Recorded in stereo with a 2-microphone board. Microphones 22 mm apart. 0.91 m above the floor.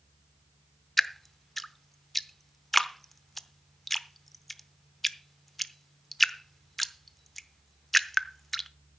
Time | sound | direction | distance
1.0 | dripping | 10° left (ahead or behind) | 0.7 m